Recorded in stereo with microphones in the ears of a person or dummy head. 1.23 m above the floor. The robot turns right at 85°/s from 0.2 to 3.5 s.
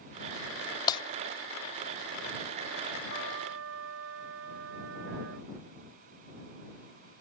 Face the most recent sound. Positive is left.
turn(degrees=-100)